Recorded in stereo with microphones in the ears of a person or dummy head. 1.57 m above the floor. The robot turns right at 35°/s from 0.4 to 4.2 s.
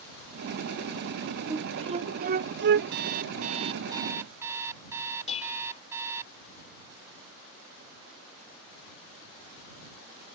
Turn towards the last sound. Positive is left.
turn(degrees=35)  # may be behind; listen again after turning